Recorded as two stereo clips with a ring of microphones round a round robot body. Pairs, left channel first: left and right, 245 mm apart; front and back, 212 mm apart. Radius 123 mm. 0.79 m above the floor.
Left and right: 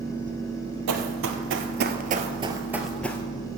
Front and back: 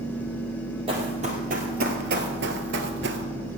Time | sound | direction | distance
0.9 | running footsteps | 110° right | 1.6 m